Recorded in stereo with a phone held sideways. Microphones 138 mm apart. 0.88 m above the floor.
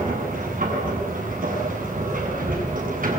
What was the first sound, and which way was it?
A machine running, 85° right.